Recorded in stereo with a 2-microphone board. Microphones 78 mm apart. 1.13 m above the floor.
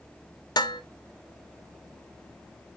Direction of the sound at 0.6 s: 60° left (ahead or behind).